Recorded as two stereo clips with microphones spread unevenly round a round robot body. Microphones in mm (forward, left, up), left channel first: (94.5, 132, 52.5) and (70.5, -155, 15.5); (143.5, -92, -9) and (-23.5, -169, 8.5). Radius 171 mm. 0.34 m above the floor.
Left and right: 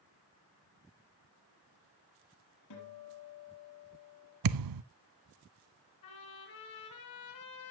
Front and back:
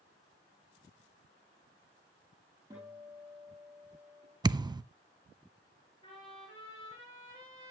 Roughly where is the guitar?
Behind left.